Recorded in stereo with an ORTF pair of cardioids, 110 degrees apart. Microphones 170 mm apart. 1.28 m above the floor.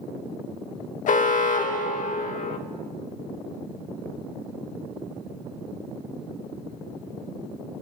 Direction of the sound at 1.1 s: 55° left.